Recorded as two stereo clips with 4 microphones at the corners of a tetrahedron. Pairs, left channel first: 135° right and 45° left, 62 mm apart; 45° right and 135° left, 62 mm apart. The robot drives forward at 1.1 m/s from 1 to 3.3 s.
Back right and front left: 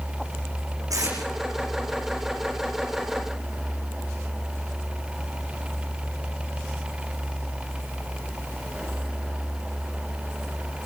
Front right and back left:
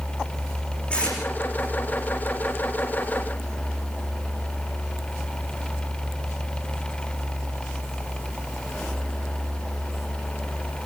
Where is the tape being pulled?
25° left, 9.5 m.